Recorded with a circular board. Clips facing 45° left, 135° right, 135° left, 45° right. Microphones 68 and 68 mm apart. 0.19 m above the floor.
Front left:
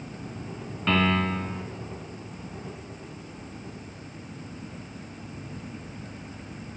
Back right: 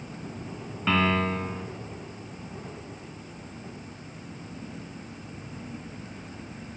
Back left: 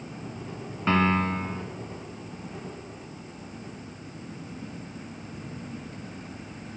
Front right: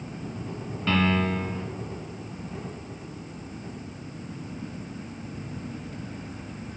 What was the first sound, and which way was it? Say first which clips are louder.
A piano: even, back left 1 dB; 145° left.